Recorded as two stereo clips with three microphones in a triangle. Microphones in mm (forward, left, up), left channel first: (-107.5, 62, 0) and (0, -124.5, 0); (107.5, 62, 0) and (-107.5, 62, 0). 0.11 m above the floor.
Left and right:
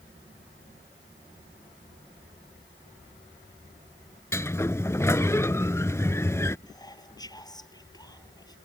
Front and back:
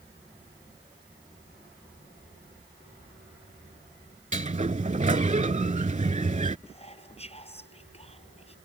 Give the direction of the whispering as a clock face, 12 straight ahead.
10 o'clock.